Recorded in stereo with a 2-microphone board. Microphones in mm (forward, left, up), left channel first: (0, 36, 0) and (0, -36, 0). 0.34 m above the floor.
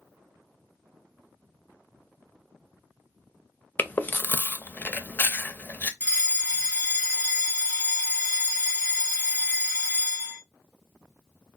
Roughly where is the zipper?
I don't hear a zipper.